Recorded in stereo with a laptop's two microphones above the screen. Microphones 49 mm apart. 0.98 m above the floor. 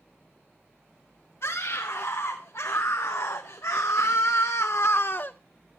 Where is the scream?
70° left (ahead or behind), 2.5 m; by 5.3 s 35° left (ahead or behind), 0.6 m.